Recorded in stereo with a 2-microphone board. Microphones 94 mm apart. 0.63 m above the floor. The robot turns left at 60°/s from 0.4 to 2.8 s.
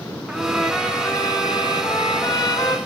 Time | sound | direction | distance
0.3 | a trumpet | 170° right | 1.1 m